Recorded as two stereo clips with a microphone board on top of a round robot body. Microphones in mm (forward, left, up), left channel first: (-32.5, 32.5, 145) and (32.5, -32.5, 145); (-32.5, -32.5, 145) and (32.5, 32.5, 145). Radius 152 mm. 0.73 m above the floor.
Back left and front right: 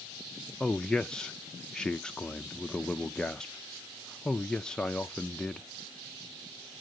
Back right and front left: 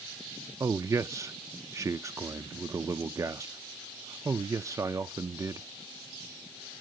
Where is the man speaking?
60° left, 0.5 m.